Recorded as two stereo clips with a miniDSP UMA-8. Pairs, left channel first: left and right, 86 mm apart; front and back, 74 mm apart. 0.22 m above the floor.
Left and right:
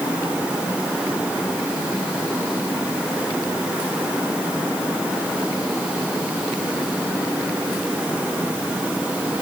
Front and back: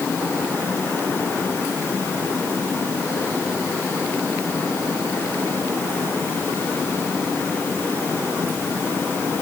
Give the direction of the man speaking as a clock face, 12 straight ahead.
I don't hear a man speaking.